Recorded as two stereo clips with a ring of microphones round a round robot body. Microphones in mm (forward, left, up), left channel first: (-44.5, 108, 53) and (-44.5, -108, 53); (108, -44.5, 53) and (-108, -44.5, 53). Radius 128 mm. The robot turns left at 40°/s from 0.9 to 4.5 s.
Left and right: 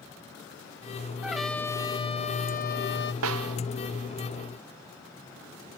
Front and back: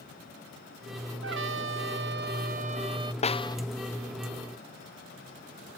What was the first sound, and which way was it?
A trumpet, 175° right.